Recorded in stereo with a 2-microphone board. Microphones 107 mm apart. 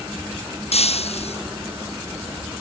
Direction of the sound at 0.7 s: 70° left (ahead or behind).